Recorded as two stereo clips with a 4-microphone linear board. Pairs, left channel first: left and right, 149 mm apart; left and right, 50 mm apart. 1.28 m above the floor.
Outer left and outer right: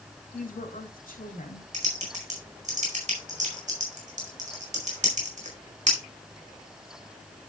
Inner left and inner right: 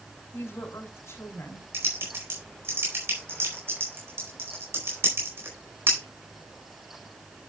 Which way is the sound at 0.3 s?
70° left (ahead or behind).